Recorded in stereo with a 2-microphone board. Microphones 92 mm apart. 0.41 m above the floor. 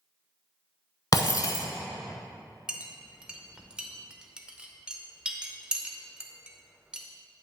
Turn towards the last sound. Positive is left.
turn(degrees=-10)  # may be behind; listen again after turning